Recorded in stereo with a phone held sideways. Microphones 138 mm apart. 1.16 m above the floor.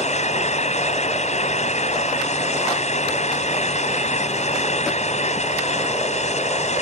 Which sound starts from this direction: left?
A fan, at 0.0 s.